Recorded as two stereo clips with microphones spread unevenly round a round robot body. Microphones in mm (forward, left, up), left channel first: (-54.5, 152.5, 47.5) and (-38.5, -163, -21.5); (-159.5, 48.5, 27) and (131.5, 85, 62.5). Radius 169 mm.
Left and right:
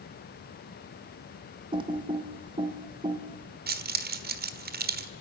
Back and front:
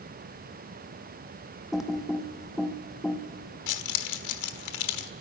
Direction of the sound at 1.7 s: 95° right.